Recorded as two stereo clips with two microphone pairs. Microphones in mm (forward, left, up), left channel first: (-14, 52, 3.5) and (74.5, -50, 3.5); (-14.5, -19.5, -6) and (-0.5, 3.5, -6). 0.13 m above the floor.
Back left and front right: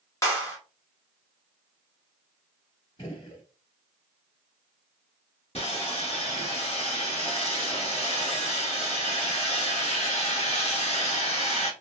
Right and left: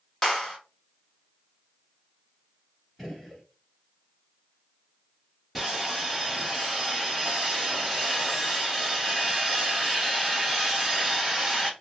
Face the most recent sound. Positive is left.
turn(degrees=140)